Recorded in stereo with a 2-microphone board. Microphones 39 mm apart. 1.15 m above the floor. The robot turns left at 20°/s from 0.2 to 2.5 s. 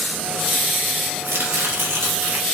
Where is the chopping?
75° right (ahead or behind), 0.9 m; by 2.5 s 60° right (ahead or behind), 0.9 m.